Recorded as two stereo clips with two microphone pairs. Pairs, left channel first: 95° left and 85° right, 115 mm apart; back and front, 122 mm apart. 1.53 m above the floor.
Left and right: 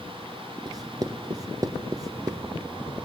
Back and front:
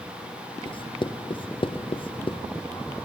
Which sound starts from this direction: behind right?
Writing, at 0.7 s.